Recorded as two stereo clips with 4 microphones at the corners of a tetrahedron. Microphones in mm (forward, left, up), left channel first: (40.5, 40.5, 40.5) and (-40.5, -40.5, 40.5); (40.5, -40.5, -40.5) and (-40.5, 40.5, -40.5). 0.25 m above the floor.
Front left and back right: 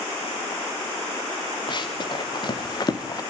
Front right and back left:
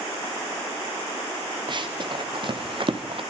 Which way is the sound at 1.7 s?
90° left.